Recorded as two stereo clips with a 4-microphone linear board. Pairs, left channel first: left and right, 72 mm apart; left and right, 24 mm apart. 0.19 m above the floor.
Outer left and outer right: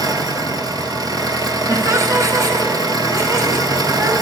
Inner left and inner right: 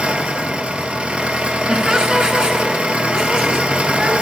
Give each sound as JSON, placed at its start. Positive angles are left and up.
{"t": 0.0, "sound": "an engine running", "side_deg": -80, "distance_m": 1.0}
{"t": 1.7, "sound": "laughter", "side_deg": -50, "distance_m": 1.9}